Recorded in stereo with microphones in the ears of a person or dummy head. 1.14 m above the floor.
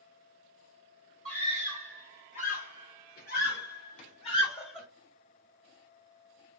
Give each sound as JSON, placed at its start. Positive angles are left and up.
{"t": 1.2, "sound": "a scream", "side_deg": 35, "distance_m": 2.0}